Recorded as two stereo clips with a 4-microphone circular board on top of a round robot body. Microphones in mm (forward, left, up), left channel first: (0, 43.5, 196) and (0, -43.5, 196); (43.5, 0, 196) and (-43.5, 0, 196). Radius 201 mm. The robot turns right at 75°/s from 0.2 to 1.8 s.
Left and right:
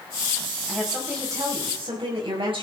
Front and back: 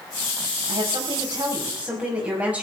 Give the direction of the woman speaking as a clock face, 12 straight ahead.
6 o'clock.